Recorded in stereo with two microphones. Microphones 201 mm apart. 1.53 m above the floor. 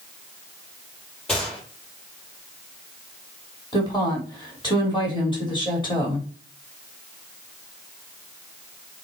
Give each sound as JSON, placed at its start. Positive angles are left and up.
{"t": 1.3, "sound": "a gunshot", "side_deg": 5, "distance_m": 5.0}
{"t": 3.7, "sound": "a woman speaking", "side_deg": 25, "distance_m": 4.0}